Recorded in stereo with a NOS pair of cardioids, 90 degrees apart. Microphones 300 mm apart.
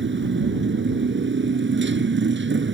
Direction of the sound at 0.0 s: 40° right.